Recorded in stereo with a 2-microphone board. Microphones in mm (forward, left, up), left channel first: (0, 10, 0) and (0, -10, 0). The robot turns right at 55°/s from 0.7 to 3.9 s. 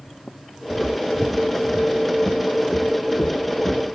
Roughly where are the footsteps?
Right.